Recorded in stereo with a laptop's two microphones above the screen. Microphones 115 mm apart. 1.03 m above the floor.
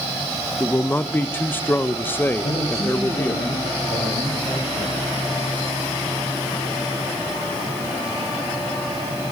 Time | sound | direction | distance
0.6 | a man speaking | 15° left (ahead or behind) | 0.5 m
2.4 | a man speaking | 60° left (ahead or behind) | 5.5 m